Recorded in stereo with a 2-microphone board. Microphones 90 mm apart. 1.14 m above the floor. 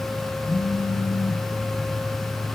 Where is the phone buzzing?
55° left (ahead or behind), 1.3 m.